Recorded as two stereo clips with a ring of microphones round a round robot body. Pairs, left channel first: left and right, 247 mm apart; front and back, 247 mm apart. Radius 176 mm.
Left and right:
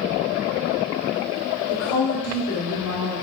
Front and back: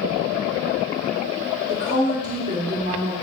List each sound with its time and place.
1.7 s a woman speaking: 130° left, 1.9 m